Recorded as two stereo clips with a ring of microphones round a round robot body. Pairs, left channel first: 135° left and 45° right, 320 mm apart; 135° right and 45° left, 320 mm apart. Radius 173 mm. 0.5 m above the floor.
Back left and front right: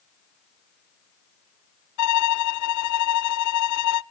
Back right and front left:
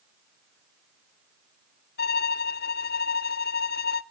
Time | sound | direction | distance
2.0 | a violin | 165° left | 0.6 m